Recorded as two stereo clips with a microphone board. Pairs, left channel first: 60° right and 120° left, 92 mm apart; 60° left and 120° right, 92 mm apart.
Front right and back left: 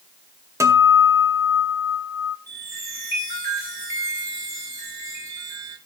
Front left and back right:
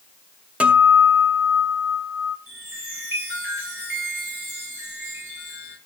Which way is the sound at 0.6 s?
165° left.